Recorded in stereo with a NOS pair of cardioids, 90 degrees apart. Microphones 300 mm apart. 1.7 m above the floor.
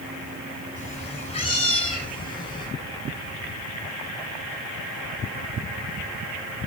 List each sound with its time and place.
0.8 s a cat meowing: 25° left, 5.5 m; by 2.7 s 15° left, 6.5 m